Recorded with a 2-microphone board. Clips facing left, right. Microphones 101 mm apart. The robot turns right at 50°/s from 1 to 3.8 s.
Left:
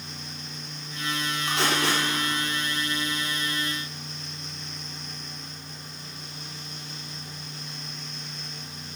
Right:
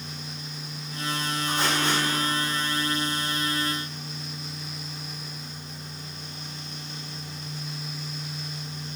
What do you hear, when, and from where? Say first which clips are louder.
1.5 s tape being pulled: left 1 dB; 85° left, 3 m; by 2.0 s 70° left (ahead or behind), 3 m